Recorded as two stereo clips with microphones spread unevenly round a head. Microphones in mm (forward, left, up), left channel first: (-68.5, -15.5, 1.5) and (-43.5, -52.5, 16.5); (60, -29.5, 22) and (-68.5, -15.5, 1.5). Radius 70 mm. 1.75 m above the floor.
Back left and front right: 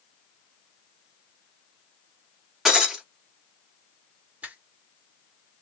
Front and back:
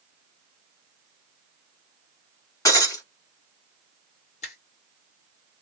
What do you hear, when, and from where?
2.6 s breaking glass: straight ahead, 1.4 m
4.4 s a finger snap: 10° right, 1.6 m